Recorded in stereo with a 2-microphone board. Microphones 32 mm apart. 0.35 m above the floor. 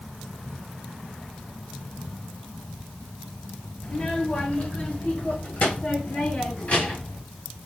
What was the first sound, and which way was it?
A child speaking, 25° left (ahead or behind).